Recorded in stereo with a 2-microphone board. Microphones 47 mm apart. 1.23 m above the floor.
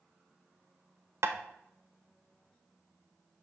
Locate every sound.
1.2 s tapping: 65° right (ahead or behind), 0.8 m